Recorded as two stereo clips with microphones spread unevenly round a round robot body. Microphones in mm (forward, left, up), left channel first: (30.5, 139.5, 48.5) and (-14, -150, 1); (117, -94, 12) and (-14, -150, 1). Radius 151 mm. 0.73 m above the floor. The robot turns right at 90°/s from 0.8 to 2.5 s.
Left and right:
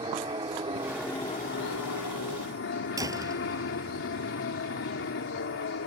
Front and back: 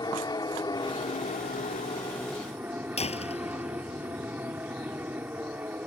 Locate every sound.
0.0 s an aircraft: 30° right; by 5.9 s 125° left
3.0 s a door slam: 20° right